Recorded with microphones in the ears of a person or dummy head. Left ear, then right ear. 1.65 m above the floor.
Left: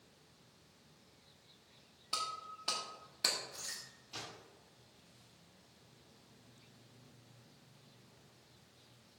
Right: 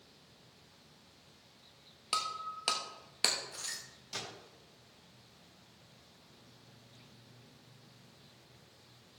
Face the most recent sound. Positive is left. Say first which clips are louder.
# right 5 dB
turn(degrees=-60)  # may be behind; listen again after turning